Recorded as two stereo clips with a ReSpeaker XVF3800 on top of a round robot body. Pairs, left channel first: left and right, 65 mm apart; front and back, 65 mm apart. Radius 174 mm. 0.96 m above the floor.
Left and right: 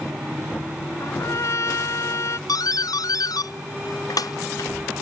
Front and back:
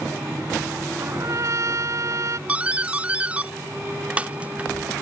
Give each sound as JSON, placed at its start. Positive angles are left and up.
{"t": 1.0, "sound": "a trumpet", "azimuth_deg": 135}
{"t": 2.5, "sound": "a doorbell", "azimuth_deg": 110}